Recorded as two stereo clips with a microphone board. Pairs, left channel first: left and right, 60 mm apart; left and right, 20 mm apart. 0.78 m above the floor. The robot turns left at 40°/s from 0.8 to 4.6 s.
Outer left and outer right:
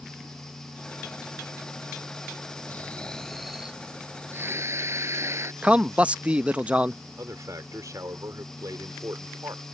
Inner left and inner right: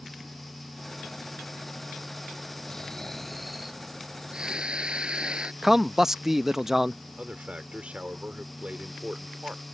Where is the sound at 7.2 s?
70° right (ahead or behind).